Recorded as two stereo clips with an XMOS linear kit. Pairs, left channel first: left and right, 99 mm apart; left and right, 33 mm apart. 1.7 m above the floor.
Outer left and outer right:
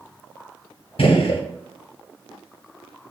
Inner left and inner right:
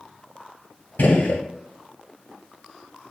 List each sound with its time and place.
1.0 s a gunshot: 65° left (ahead or behind), 0.6 m